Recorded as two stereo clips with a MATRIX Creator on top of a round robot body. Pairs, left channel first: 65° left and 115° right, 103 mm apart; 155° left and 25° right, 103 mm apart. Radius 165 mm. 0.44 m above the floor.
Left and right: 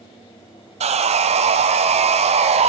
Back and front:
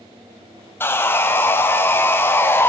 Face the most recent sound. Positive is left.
turn(degrees=-130)